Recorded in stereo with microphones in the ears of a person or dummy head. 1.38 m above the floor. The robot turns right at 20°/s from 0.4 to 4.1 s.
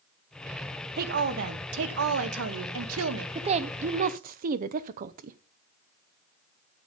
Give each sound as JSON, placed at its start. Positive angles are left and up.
{"t": 1.0, "sound": "a woman speaking", "azimuth_deg": -130, "distance_m": 1.0}
{"t": 3.4, "sound": "a woman speaking", "side_deg": -30, "distance_m": 0.6}